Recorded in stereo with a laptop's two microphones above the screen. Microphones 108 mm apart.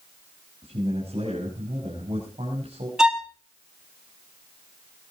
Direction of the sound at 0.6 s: 70° right (ahead or behind).